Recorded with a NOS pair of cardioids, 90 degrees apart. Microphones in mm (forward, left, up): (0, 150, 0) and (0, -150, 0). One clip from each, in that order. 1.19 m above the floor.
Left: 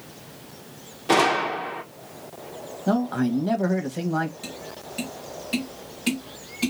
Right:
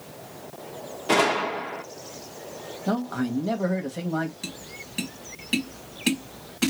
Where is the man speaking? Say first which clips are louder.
Left 4 dB; 10° left, 1.2 m.